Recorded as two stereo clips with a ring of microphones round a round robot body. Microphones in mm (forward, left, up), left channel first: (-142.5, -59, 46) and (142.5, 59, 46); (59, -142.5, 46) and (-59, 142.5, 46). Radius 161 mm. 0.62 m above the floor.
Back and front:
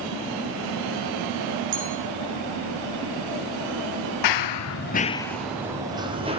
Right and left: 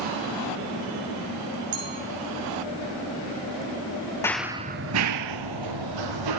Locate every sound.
1.7 s a clink: 65° left, 6 m
4.2 s running footsteps: 150° right, 1.0 m; by 6.4 s 95° left, 2.5 m